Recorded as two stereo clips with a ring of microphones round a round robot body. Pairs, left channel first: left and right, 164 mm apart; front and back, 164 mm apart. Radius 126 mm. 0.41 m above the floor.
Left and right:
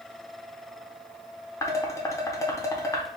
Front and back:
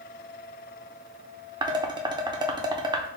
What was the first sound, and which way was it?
Dishes clattering, 145° left.